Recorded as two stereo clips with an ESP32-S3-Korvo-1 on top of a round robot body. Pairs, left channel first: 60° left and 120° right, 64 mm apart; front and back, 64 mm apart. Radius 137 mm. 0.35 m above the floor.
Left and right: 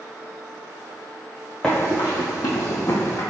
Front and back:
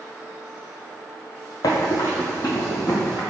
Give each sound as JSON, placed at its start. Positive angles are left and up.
{"t": 1.6, "sound": "running footsteps", "azimuth_deg": -20, "distance_m": 0.5}